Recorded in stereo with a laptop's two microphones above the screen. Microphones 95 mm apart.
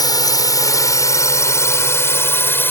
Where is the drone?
40° left (ahead or behind); by 2.7 s 20° left (ahead or behind).